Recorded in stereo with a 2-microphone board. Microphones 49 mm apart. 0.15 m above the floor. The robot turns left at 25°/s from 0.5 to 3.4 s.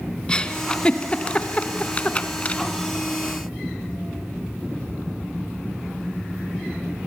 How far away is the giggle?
About 1.5 m.